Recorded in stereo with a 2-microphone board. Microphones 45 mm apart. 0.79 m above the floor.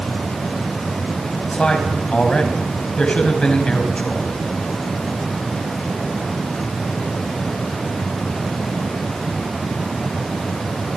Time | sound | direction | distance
1.5 | a man speaking | 25° left (ahead or behind) | 4.5 m